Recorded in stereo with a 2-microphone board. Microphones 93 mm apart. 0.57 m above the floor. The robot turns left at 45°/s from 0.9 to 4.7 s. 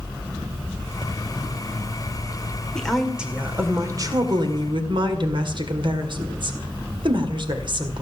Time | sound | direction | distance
2.8 | a woman speaking | 10° left | 1.9 m